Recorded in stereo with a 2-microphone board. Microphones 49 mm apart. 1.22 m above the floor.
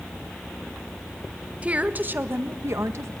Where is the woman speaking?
25° right (ahead or behind), 1.8 m; by 3.1 s 75° right (ahead or behind), 1.6 m.